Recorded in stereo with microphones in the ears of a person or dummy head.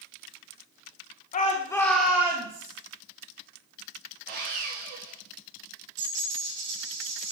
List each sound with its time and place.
1.3 s a shout: 45° left (ahead or behind), 1.1 m; by 2.7 s 25° right (ahead or behind), 2 m
4.3 s sawing: 60° right (ahead or behind), 2.5 m
6.0 s a dropped coin: 20° right (ahead or behind), 3 m